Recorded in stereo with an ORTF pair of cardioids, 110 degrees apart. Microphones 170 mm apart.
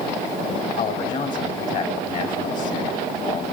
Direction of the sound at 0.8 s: 50° left.